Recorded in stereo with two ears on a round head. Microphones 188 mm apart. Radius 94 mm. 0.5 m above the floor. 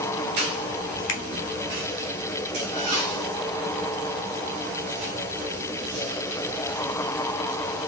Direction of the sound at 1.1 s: 55° left (ahead or behind).